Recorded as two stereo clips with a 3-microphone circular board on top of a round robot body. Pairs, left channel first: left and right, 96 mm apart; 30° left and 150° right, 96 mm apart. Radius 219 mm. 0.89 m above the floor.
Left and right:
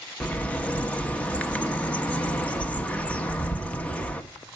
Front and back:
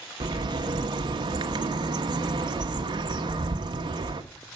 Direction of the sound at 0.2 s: 165° left.